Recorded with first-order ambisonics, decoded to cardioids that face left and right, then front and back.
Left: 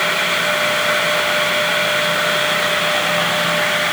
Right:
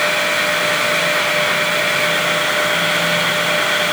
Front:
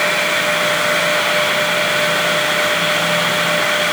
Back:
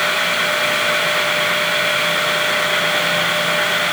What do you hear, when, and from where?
Only background noise.